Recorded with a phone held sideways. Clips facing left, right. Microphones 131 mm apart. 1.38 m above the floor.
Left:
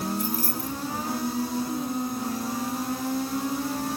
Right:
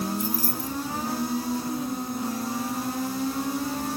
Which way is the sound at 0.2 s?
50° left (ahead or behind).